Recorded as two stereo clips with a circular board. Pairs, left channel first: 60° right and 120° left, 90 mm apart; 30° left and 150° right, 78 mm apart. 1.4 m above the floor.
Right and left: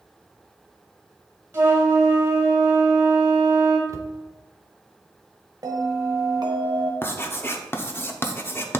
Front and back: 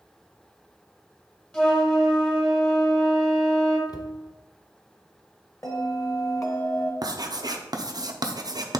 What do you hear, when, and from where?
1.5 s a flute: 95° left, 1.3 m
3.9 s a cupboard door: 65° left, 0.6 m
5.6 s a bell: 75° left, 1.0 m
7.0 s writing: 125° right, 0.7 m